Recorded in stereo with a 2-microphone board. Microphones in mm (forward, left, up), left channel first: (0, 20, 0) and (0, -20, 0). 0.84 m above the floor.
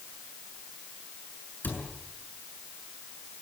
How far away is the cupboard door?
About 6.5 m.